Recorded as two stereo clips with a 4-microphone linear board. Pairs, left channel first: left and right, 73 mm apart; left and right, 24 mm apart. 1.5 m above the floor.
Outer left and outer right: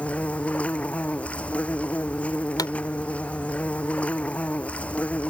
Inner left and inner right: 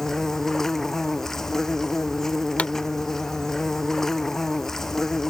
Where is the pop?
70° left (ahead or behind).